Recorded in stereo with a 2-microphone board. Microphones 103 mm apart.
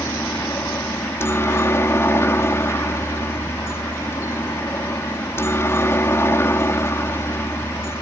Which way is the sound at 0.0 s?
25° left (ahead or behind).